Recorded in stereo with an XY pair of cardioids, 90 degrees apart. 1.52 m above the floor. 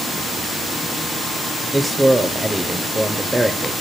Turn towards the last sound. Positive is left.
turn(degrees=-15)